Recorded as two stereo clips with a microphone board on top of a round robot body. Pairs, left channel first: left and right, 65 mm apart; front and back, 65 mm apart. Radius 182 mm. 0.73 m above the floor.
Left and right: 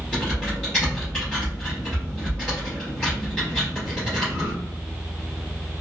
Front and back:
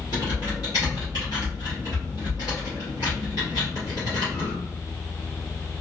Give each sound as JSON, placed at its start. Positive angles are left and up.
{"t": 0.1, "sound": "typing on a keyboard", "azimuth_deg": 15, "distance_m": 0.7}